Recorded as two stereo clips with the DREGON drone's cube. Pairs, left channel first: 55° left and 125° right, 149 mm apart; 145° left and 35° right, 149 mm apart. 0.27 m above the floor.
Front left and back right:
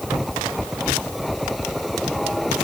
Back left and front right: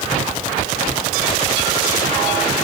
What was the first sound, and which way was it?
Only background noise.